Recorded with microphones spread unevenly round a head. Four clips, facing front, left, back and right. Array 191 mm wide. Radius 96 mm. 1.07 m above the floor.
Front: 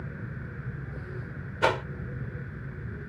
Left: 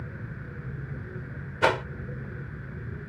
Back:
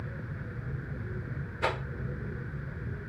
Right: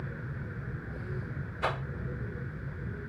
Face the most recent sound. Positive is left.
turn(degrees=60)